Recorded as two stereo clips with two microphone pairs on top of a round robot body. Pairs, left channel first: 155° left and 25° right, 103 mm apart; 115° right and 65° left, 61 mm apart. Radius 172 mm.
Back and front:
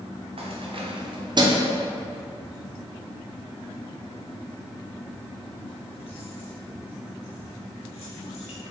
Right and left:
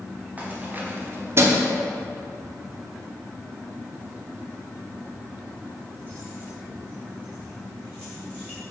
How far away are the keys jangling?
About 1.3 m.